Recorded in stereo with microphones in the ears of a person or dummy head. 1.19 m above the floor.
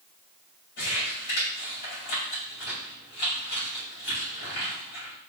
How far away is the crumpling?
About 4 m.